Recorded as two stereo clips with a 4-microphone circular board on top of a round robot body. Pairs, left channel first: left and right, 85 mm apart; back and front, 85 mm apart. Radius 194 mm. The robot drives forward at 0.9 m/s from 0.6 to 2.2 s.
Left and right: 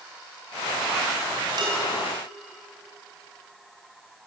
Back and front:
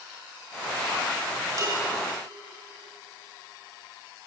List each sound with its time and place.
1.6 s dishes clattering: 50° right, 5 m; by 1.8 s 55° right, 5 m